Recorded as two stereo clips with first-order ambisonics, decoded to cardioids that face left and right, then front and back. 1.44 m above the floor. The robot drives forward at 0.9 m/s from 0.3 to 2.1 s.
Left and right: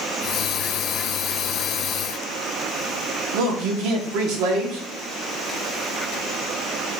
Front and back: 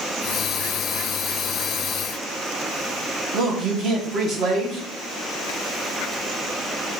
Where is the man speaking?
120° right, 1.0 m.